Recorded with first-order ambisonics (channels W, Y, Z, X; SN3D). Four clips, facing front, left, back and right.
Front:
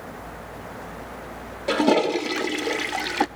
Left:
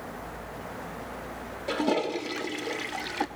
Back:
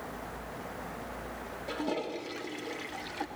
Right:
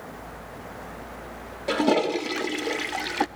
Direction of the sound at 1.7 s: 25° right.